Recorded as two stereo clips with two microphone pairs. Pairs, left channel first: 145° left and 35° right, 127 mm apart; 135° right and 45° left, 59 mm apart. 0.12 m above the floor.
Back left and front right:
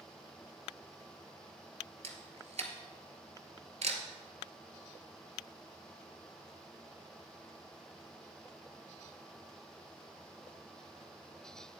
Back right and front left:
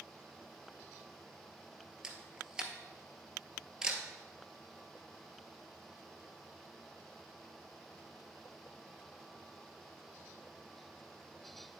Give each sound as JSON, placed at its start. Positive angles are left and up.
{"t": 2.0, "sound": "a camera shutter", "azimuth_deg": -25, "distance_m": 0.9}